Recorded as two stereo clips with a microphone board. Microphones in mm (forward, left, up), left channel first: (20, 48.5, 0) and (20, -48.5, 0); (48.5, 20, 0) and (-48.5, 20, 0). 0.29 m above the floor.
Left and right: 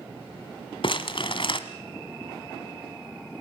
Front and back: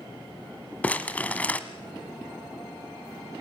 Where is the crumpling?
75° left, 1.3 m.